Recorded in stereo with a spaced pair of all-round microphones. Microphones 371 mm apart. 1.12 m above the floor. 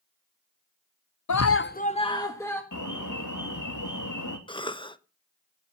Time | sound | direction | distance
1.3 | a scream | 55° left (ahead or behind) | 0.5 m
2.7 | an alarm | 55° left (ahead or behind) | 3 m
4.5 | a cough | 15° left (ahead or behind) | 0.9 m